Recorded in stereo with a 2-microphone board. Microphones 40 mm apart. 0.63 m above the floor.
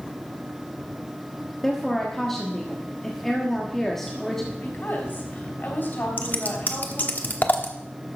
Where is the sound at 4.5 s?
55° left (ahead or behind), 3.5 m.